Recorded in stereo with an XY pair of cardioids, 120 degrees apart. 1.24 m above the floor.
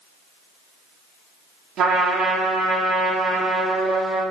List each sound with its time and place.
1.8 s a trumpet: 65° right, 2.5 m